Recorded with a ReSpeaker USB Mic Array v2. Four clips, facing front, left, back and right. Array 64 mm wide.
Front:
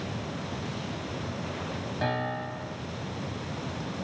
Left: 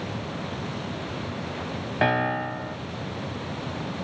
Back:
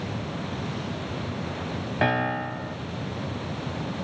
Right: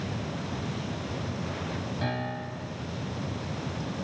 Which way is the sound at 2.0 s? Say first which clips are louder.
Left 13 dB, back 6 dB; 130° left.